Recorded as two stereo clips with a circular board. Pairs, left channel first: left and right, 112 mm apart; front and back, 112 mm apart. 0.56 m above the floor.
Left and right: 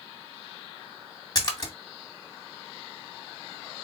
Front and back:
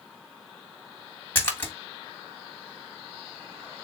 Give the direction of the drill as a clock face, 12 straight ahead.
I don't hear a drill.